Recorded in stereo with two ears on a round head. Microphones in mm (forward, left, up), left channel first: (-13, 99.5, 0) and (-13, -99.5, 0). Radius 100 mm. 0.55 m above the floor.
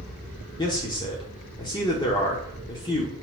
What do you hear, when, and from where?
0.6 s a man speaking: 20° left (ahead or behind), 1.1 m